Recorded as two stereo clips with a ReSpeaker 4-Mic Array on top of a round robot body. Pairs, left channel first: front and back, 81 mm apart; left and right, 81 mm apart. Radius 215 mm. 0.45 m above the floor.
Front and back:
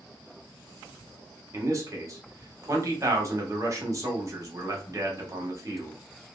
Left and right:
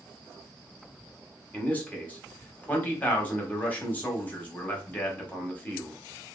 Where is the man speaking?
150° left, 1.5 m.